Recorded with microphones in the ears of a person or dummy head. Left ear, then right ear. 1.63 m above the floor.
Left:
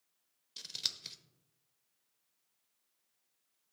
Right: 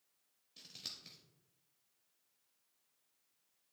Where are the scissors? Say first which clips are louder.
Left 10 dB; 45° left (ahead or behind), 0.7 m.